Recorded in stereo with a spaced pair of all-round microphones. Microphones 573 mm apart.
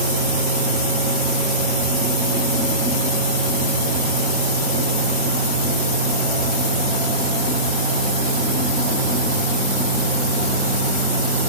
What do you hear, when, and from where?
0.0 s a fan: 15° left (ahead or behind), 2 m